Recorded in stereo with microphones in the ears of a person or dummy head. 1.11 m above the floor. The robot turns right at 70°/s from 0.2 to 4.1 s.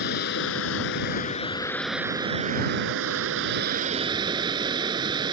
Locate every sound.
0.0 s running water: 60° left; by 5.3 s 25° right